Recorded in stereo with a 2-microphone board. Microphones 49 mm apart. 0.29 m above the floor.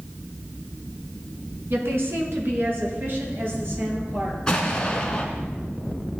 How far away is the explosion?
About 1.9 m.